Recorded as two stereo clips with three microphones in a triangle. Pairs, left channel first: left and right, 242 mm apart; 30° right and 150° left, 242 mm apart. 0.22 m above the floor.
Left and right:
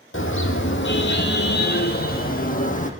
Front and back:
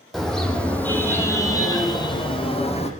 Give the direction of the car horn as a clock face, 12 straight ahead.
10 o'clock.